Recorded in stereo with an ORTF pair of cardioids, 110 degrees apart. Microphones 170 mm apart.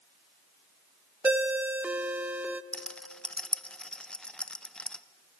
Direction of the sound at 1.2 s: 10° right.